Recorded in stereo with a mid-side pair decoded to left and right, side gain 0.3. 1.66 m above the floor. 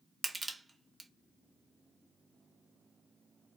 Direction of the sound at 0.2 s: 35° right.